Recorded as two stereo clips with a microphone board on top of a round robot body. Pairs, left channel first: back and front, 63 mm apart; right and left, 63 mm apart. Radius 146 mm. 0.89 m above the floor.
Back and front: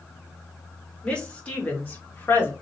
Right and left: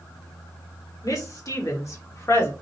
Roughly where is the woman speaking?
Right.